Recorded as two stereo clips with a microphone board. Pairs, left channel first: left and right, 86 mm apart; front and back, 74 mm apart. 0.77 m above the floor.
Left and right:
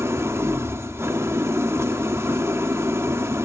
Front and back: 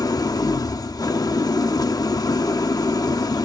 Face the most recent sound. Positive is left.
turn(degrees=-30)